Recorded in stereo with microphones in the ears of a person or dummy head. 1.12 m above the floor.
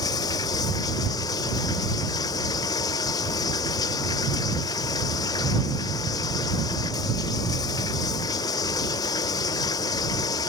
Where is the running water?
25° left (ahead or behind).